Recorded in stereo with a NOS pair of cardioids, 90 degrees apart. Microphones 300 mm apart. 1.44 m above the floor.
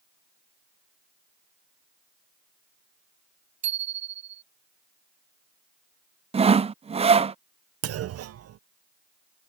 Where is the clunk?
50° right.